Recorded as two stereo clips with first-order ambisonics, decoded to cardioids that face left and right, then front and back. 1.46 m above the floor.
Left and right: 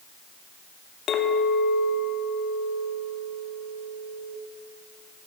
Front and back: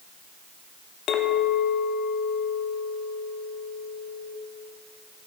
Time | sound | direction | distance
1.1 | a clink | 40° left | 1.0 m